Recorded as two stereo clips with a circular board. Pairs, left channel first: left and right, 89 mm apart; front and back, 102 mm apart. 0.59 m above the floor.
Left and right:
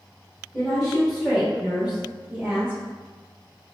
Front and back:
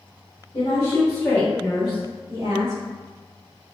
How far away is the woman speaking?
About 1.3 m.